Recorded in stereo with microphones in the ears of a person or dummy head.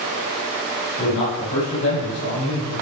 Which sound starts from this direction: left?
A man speaking, at 1.0 s.